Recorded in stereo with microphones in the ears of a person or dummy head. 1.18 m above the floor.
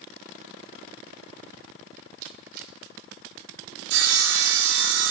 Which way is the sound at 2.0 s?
55° right (ahead or behind).